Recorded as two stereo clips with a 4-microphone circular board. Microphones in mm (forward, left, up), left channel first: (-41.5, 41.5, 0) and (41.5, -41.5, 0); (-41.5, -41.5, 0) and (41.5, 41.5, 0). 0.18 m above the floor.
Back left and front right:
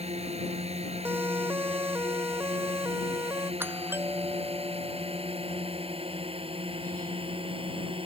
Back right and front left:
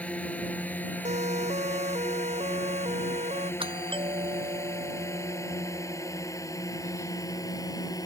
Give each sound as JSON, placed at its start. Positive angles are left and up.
{"t": 0.0, "sound": "a drone", "azimuth_deg": -60}
{"t": 1.1, "sound": "a siren", "azimuth_deg": 25}
{"t": 3.6, "sound": "a doorbell", "azimuth_deg": 25}